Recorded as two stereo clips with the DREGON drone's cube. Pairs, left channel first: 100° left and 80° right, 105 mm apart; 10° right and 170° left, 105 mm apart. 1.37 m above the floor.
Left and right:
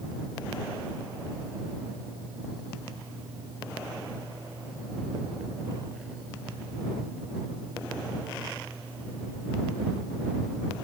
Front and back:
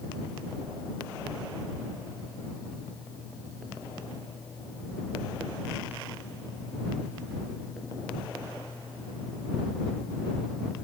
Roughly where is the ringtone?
I don't hear a ringtone.